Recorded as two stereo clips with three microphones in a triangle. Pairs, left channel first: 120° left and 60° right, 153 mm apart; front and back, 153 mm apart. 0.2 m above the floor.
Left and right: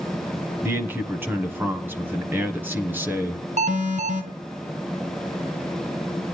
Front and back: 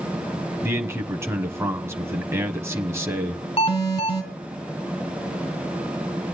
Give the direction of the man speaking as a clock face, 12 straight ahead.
4 o'clock.